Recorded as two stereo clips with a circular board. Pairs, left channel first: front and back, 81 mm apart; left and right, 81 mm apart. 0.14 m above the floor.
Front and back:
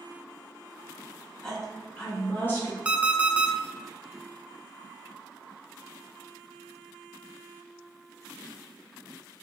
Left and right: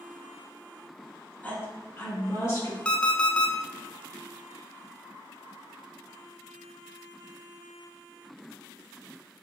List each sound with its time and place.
1.4 s a woman speaking: 75° left, 1.1 m; by 2.8 s 50° left, 1.7 m
2.9 s an alarm clock: 145° left, 0.5 m